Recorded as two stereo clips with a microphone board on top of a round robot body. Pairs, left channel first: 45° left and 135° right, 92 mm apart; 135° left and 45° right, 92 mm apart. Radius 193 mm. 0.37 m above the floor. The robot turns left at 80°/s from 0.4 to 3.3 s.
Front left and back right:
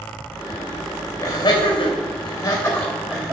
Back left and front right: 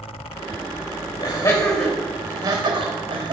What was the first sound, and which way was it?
Laughter, 90° left.